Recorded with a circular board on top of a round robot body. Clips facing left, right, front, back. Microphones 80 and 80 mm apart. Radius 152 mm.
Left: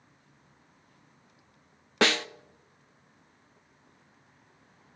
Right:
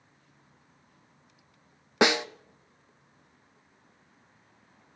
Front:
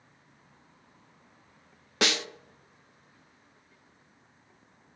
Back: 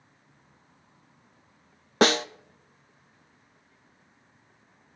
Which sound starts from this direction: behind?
A snare drum, at 2.0 s.